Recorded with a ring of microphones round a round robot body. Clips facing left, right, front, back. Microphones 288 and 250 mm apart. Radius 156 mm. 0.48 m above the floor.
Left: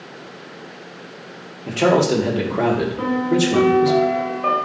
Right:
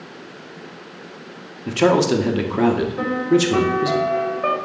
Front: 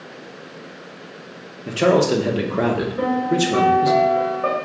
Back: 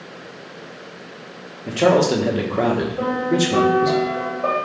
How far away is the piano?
About 2 m.